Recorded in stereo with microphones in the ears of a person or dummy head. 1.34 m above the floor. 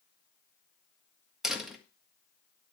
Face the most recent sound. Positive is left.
turn(degrees=0)  # may be behind; listen again after turning